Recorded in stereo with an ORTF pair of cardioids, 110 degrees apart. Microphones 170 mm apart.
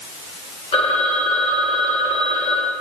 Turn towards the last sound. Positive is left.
turn(degrees=35)